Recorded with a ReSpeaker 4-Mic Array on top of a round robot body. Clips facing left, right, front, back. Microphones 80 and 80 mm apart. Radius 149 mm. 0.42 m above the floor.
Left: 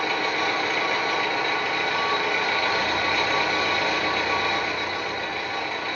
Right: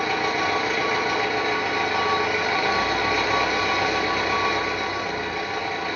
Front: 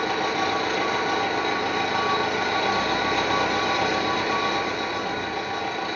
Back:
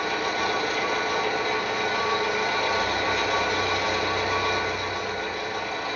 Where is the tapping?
No tapping in this recording.